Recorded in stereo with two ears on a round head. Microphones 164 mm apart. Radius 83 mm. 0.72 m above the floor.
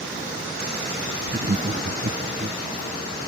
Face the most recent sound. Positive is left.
turn(degrees=-30)  # may be behind; listen again after turning